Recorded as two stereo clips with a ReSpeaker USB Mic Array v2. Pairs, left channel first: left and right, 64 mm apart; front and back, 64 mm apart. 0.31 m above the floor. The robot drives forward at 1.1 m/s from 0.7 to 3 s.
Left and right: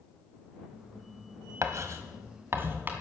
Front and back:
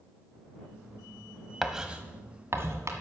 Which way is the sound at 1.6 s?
90° right.